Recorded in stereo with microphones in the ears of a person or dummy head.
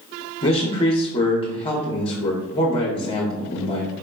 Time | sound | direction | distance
0.4 | a man speaking | 30° left (ahead or behind) | 0.7 m